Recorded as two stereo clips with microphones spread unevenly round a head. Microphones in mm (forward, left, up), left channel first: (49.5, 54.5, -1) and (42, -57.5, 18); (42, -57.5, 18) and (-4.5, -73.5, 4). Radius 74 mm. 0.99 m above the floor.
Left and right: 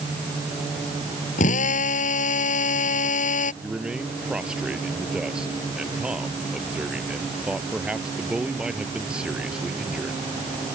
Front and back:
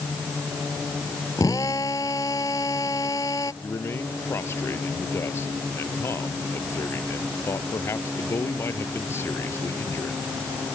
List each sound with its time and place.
1.4 s a drill: 80° left
3.6 s a man speaking: 10° right